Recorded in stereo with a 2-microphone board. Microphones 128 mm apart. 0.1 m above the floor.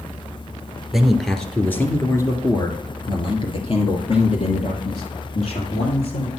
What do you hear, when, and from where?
0.9 s a man speaking: 5° right (ahead or behind), 1.3 m; by 6.3 s 60° left (ahead or behind), 2.5 m